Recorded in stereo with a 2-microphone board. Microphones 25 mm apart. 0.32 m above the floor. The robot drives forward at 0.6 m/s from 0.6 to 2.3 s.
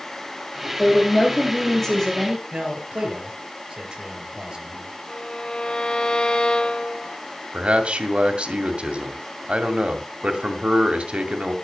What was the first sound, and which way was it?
A woman speaking, 20° left (ahead or behind).